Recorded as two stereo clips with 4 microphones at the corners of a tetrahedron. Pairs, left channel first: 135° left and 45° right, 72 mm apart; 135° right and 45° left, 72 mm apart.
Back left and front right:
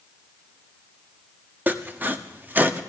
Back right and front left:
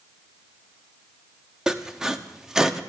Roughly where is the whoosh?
I don't hear a whoosh.